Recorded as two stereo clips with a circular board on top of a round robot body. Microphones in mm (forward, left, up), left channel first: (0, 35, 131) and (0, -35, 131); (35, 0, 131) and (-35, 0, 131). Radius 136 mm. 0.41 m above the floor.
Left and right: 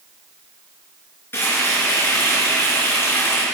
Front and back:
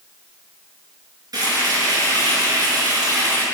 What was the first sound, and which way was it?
Frying, 150° left.